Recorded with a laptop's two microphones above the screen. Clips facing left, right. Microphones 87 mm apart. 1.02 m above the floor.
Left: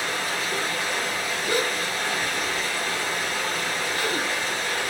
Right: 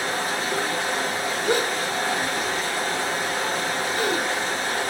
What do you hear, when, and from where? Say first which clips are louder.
0.0 s running water: right 2 dB; 40° right (ahead or behind), 2.5 m
1.4 s a gasp: right 3 dB; 75° right (ahead or behind), 2.5 m